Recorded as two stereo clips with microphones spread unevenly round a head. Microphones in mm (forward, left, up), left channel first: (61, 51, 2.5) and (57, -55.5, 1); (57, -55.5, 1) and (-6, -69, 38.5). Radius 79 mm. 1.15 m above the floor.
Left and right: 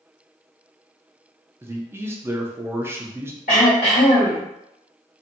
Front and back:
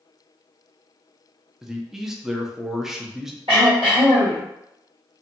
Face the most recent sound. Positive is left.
turn(degrees=135)